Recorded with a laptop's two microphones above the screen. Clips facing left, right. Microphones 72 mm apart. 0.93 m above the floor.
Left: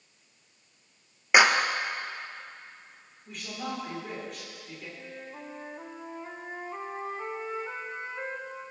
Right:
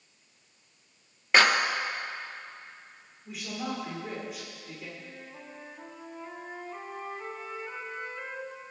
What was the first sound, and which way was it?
A clap, 15° left (ahead or behind).